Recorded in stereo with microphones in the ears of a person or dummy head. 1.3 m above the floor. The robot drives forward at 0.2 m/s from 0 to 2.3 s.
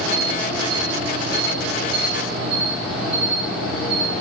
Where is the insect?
10° right (ahead or behind), 3.5 m.